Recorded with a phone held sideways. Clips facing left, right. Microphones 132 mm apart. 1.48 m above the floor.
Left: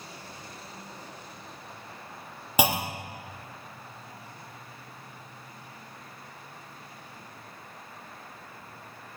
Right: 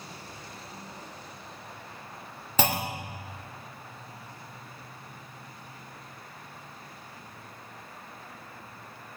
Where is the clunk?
10° left (ahead or behind), 0.7 m.